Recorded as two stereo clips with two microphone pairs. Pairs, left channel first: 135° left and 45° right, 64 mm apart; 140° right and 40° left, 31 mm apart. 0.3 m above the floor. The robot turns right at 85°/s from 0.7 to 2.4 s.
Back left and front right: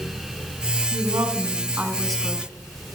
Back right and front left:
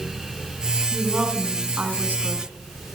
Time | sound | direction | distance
0.9 | a woman speaking | 55° right | 2.5 m